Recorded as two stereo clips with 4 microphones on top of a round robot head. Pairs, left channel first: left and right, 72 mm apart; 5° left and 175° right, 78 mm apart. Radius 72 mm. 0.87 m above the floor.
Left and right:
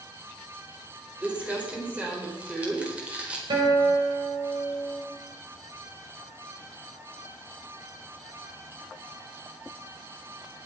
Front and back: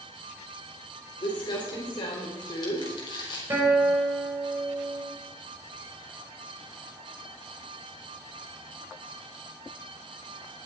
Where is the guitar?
110° right, 5.5 m.